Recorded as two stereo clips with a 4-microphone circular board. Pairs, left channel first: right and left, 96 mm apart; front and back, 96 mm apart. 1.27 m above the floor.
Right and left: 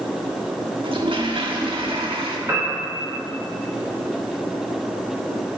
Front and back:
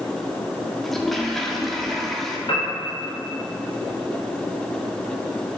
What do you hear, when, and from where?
0.8 s a toilet flushing: 85° left, 1.4 m
2.5 s a piano: 30° left, 3.5 m